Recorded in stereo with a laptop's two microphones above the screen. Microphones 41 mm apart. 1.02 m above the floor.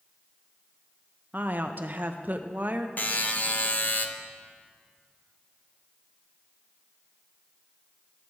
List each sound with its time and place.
1.3 s a woman speaking: 50° right (ahead or behind), 0.7 m
3.0 s a buzzer: 45° left (ahead or behind), 0.7 m